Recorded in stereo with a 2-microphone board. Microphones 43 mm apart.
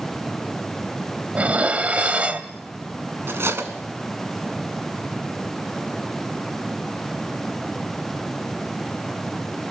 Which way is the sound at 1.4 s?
30° right (ahead or behind).